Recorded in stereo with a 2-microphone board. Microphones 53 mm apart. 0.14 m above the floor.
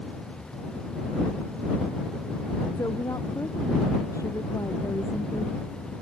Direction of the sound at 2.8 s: 85° left.